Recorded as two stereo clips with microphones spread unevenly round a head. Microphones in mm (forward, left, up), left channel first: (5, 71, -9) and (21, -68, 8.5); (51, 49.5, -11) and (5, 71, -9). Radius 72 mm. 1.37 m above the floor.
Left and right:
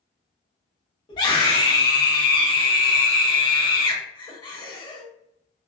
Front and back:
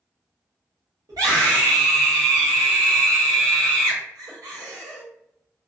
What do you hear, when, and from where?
1.1 s a scream: 160° left, 1.2 m